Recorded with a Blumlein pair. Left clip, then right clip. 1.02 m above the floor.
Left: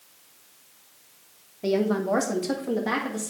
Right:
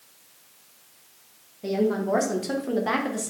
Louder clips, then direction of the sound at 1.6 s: Left 1 dB; 20° left.